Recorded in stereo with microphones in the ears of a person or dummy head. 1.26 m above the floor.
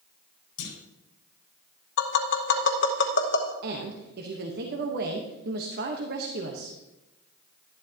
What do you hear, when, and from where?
0.6 s a clunk: 70° left (ahead or behind), 5 m
2.0 s tapping: 60° left (ahead or behind), 1.0 m
3.6 s a woman speaking: 55° right (ahead or behind), 1.2 m